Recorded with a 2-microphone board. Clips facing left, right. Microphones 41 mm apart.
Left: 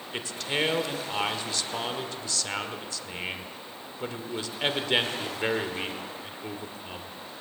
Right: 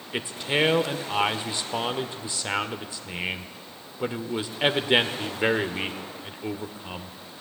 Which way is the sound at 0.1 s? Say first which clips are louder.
Right 4 dB; 20° right (ahead or behind).